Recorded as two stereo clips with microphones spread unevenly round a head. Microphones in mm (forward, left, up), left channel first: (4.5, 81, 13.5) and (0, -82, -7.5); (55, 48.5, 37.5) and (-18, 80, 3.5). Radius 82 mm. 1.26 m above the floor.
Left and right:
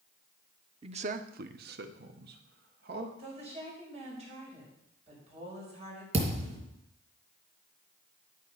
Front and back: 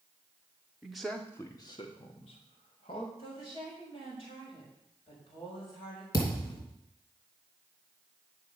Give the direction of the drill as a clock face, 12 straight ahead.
I don't hear a drill.